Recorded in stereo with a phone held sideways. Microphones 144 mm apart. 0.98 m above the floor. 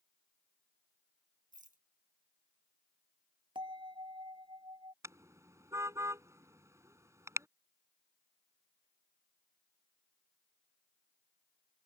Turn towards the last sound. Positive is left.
turn(degrees=-20)  # may be behind; listen again after turning